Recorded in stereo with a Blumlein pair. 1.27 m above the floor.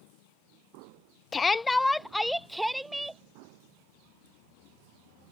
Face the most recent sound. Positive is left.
turn(degrees=-5)